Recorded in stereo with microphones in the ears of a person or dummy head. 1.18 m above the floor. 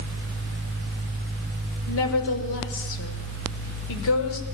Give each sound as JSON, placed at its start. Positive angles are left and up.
{"t": 1.9, "sound": "a woman speaking", "side_deg": 75, "distance_m": 5.0}